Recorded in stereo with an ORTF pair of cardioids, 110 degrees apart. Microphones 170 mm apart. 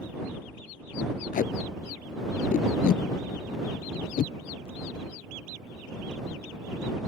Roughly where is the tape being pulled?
Ahead left.